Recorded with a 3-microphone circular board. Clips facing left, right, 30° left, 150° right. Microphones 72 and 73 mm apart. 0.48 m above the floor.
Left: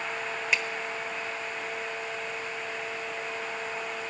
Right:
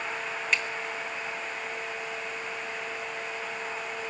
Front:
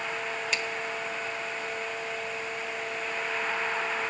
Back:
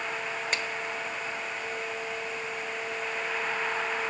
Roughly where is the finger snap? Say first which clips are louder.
Even, back 1 dB; behind.